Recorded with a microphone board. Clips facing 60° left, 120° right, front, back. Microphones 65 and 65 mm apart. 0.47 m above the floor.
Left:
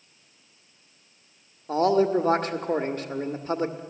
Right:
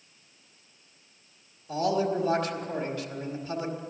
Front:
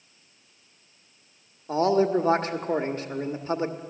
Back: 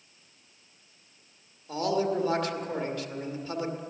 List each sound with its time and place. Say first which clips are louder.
1.7 s a man speaking: left 6 dB, front 6 dB; 40° left, 1.1 m